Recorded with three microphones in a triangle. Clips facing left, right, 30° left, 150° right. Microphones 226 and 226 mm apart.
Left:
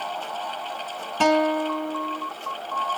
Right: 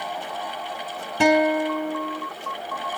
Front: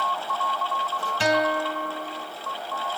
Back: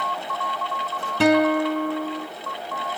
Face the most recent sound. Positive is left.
turn(degrees=-170)